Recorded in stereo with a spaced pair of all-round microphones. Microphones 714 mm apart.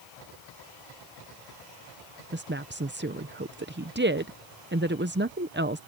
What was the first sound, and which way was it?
A woman speaking, 15° right (ahead or behind).